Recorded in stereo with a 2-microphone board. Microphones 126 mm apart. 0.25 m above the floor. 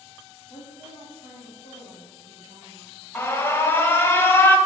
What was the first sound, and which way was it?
A woman speaking, 45° left (ahead or behind).